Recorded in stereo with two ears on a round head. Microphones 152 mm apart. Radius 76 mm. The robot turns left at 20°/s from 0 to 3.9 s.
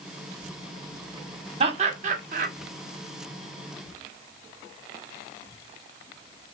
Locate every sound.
1.6 s laughter: 35° right (ahead or behind), 1.1 m; by 2.5 s 50° right (ahead or behind), 1.1 m